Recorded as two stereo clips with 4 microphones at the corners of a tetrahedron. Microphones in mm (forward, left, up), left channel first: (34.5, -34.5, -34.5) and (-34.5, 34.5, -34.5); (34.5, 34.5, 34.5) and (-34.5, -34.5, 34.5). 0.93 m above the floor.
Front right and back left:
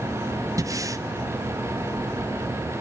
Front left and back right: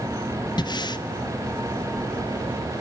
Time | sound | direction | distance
0.6 | breathing | 85° left | 0.7 m